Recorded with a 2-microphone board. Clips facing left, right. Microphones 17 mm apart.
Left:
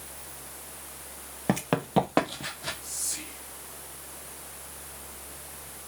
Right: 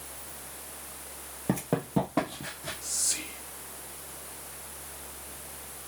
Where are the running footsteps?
45° left (ahead or behind), 1.3 m; by 2.7 s 60° left (ahead or behind), 2 m.